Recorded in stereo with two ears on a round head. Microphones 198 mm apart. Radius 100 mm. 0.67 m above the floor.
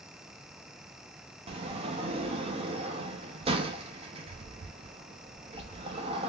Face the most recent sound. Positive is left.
turn(degrees=-25)  # may be behind; listen again after turning